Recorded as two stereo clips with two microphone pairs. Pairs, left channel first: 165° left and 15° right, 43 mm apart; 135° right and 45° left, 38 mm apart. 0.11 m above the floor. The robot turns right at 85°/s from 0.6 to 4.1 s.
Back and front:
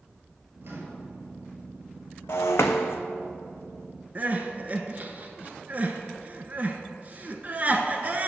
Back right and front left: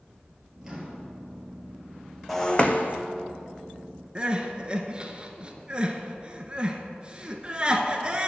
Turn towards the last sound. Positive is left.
turn(degrees=0)